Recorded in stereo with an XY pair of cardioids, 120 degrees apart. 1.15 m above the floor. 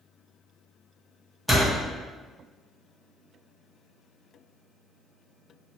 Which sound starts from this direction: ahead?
A door slam, at 1.5 s.